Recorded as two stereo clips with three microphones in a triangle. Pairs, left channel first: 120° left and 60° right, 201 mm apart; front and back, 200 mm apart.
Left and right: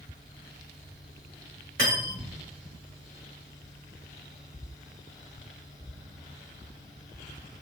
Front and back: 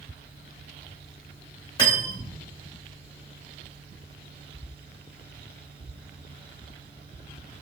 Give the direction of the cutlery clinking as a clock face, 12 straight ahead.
2 o'clock.